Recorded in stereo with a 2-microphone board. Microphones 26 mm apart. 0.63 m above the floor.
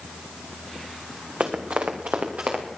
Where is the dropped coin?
I don't hear a dropped coin.